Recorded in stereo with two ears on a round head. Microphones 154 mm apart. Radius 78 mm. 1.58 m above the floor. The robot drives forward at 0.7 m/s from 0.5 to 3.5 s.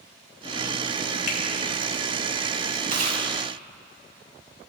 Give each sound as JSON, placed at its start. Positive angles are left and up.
{"t": 1.3, "sound": "a finger snap", "side_deg": 55, "distance_m": 3.0}
{"t": 2.9, "sound": "chewing", "side_deg": -55, "distance_m": 4.5}